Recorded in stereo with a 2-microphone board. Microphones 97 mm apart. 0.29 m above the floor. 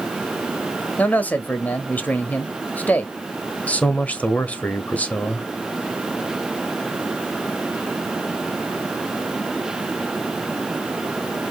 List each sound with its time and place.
1.0 s a man speaking: 20° left (ahead or behind), 1.0 m
3.7 s a man speaking: 15° left (ahead or behind), 1.2 m